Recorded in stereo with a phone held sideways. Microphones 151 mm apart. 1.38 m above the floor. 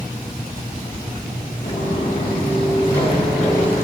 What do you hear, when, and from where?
1.6 s footsteps: 35° left (ahead or behind), 4.5 m; by 3.8 s 15° left (ahead or behind), 6 m